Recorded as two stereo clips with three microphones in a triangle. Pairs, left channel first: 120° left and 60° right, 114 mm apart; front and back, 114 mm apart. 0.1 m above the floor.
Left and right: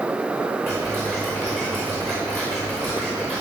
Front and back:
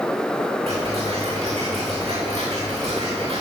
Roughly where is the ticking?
Behind right.